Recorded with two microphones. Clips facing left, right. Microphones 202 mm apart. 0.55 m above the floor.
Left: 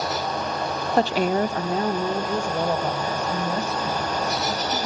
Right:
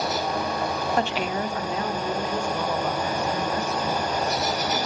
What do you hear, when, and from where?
1.0 s a woman speaking: 30° left (ahead or behind), 0.7 m